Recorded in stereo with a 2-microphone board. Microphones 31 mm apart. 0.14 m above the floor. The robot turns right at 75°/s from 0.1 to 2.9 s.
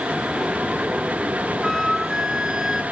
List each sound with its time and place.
1.6 s a flute: 10° left (ahead or behind), 1.3 m; by 2.8 s 25° right (ahead or behind), 1.3 m